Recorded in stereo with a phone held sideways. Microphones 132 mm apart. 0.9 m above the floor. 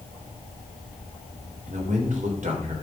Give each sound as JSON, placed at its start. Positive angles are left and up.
{"t": 1.7, "sound": "a man speaking", "side_deg": -75, "distance_m": 3.5}